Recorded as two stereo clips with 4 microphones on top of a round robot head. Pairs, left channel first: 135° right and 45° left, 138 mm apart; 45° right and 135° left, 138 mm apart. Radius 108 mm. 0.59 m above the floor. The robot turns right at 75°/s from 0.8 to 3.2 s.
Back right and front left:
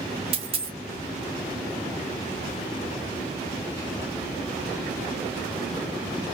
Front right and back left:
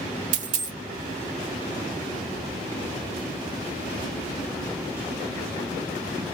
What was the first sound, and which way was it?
A dropped coin, 100° left.